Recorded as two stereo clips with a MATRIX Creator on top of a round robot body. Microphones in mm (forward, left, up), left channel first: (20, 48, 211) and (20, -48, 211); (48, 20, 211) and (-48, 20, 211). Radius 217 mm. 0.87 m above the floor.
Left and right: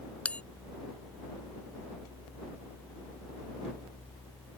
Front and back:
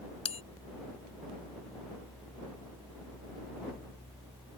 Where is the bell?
10° left.